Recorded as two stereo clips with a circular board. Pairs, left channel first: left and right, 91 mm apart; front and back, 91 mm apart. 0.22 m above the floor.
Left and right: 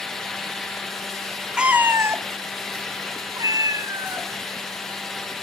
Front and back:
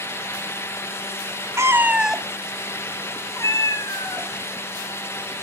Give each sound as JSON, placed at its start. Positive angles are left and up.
{"t": 1.6, "sound": "a cat meowing", "azimuth_deg": -165, "distance_m": 0.6}